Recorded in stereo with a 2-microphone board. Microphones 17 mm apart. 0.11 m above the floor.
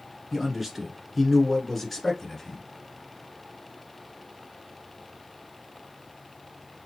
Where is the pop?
I don't hear a pop.